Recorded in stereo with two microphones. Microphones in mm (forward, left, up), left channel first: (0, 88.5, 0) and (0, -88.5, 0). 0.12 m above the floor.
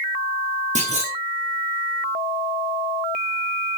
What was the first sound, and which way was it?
A clunk, 45° right (ahead or behind).